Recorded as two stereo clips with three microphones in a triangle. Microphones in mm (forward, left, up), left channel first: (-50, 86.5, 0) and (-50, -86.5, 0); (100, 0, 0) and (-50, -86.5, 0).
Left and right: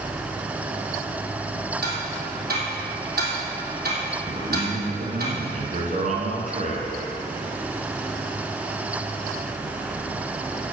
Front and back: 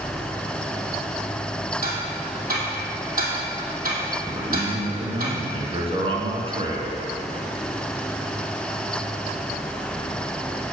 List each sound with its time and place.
1.8 s ticking: 120° right, 3 m
4.3 s a man speaking: 105° right, 2 m